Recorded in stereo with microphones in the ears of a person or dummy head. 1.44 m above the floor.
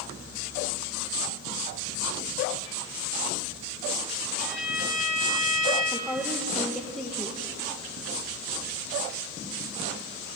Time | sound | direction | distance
4.4 | a violin | 5° right (ahead or behind) | 7 m
5.9 | a woman speaking | centre (ahead or behind) | 1.3 m